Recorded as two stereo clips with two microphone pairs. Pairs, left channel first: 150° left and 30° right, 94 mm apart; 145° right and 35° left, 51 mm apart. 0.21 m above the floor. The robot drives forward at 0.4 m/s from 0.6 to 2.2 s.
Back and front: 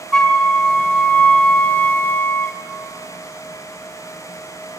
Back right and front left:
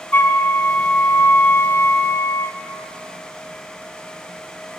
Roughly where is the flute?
Behind right.